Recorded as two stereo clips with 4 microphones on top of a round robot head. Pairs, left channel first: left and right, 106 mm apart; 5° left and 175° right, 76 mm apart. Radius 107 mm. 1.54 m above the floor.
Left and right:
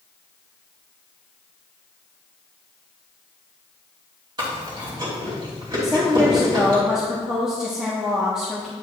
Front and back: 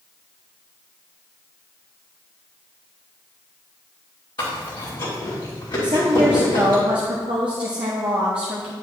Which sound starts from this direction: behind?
A woman speaking, at 5.8 s.